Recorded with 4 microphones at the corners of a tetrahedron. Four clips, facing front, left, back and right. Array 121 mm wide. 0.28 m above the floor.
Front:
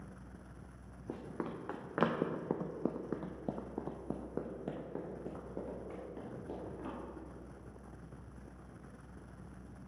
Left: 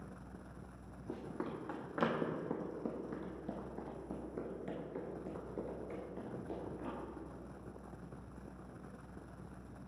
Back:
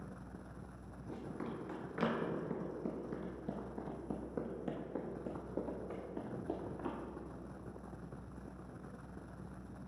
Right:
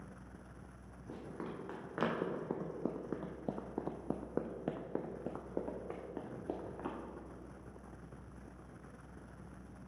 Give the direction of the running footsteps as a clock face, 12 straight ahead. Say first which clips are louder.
Left 2 dB, front 2 dB; 11 o'clock.